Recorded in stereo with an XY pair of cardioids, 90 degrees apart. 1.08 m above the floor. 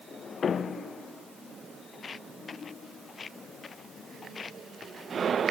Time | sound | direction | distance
1.9 | footsteps | 45° left | ?